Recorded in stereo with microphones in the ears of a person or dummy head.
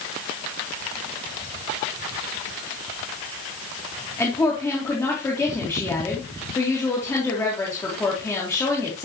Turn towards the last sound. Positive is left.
turn(degrees=10)  # may be behind; listen again after turning